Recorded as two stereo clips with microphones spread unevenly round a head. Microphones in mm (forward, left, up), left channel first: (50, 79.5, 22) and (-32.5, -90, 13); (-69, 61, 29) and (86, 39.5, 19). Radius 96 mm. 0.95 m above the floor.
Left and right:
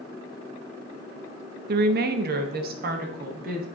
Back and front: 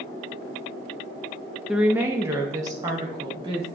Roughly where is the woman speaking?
Right.